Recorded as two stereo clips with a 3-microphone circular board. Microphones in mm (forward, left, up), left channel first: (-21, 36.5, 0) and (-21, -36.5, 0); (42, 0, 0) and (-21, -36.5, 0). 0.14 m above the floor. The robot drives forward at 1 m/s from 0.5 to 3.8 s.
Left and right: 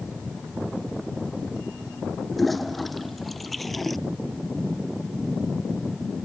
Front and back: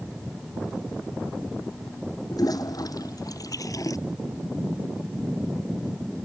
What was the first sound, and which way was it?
A toilet flushing, straight ahead.